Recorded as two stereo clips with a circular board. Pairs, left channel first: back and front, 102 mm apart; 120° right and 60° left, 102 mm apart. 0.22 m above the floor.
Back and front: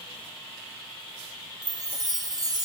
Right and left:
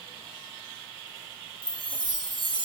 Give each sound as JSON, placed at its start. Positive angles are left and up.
{"t": 1.6, "sound": "a chime", "azimuth_deg": 40}